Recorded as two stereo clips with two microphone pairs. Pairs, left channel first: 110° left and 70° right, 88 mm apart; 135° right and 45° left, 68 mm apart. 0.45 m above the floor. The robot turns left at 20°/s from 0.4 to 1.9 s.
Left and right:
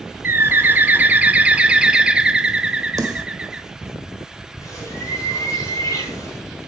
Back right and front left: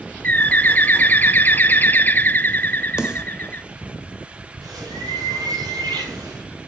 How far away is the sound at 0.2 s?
About 0.5 m.